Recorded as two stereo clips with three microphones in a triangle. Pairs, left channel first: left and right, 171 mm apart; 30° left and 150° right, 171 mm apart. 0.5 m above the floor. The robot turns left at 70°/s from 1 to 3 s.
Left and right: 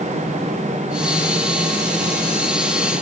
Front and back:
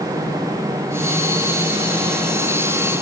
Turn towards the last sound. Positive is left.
No sound to turn to.